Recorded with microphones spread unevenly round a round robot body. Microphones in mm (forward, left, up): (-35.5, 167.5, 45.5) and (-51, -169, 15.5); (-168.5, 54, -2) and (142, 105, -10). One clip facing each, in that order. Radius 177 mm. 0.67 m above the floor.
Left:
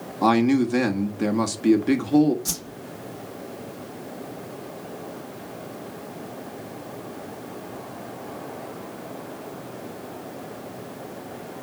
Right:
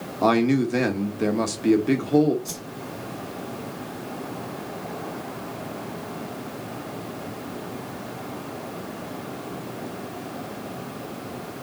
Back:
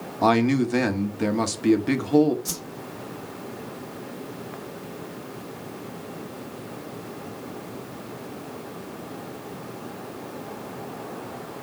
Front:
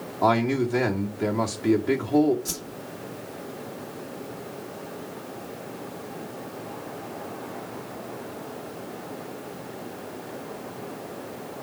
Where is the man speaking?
165° left, 1.6 m.